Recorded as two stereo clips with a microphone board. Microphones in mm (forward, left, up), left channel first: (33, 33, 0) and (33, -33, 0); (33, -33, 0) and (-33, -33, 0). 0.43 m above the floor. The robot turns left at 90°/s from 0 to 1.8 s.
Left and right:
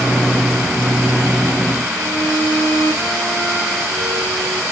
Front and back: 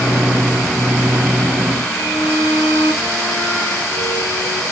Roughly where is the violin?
Ahead.